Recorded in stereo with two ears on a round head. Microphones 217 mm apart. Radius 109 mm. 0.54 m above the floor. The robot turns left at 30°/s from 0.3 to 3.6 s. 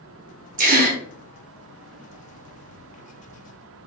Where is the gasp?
35° right (ahead or behind), 0.6 m; by 1.0 s 40° right (ahead or behind), 0.6 m.